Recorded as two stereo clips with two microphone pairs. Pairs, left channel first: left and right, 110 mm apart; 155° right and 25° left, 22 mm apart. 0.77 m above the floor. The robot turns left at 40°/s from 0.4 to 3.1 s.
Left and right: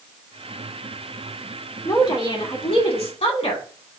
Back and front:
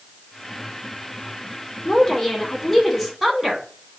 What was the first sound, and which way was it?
A woman speaking, 150° left.